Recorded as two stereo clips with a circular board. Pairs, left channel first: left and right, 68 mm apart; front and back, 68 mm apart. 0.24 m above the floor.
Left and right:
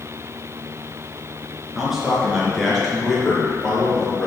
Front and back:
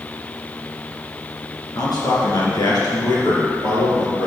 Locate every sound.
1.8 s a man speaking: 5° right, 3 m; by 4.3 s 10° left, 4 m